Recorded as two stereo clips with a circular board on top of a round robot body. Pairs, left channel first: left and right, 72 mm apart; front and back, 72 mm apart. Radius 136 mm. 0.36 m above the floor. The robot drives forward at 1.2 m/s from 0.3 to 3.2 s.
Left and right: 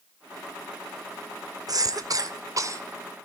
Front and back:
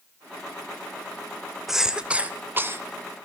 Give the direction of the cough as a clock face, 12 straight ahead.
3 o'clock.